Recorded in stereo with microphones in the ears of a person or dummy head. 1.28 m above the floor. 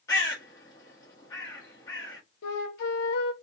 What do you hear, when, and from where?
0.1 s a bird: 15° left (ahead or behind), 1.2 m
2.4 s a flute: 60° left (ahead or behind), 0.9 m